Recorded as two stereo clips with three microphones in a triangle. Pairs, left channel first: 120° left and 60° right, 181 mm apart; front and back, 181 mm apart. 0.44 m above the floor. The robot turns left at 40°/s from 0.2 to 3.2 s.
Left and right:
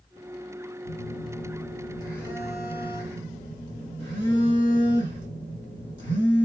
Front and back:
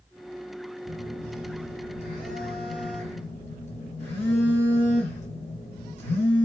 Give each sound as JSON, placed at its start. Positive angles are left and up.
{"t": 0.8, "sound": "a phone buzzing", "azimuth_deg": 95, "distance_m": 5.5}